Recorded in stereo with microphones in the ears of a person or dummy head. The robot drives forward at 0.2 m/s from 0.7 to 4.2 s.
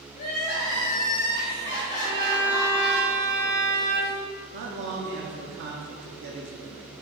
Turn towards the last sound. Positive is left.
turn(degrees=-55)  # may be behind; listen again after turning